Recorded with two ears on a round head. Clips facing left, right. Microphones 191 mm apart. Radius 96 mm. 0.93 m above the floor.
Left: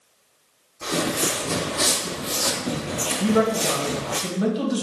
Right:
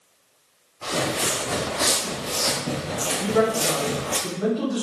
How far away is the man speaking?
About 1.4 m.